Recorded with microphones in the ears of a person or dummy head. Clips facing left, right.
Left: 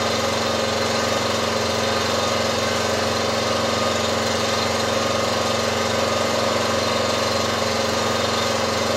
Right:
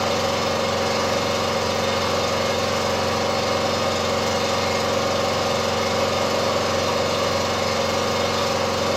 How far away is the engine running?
About 2 m.